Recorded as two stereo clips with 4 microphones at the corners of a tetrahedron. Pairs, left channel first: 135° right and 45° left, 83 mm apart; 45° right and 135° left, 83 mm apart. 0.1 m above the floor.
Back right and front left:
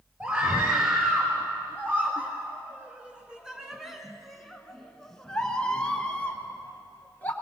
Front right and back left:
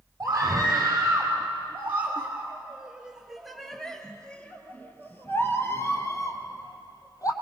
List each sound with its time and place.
0.2 s a scream: 100° left, 2.5 m; by 7.3 s 70° right, 2.5 m